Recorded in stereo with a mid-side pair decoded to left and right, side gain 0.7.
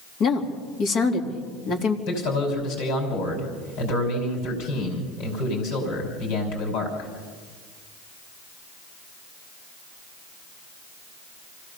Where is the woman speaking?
50° left, 3.5 m.